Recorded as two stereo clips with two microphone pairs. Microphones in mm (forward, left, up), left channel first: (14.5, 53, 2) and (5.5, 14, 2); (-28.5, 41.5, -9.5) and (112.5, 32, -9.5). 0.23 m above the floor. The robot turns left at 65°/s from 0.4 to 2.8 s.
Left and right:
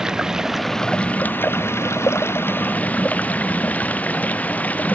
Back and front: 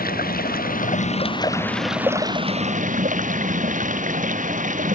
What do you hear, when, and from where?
0.0 s running water: straight behind; by 5.0 s 25° left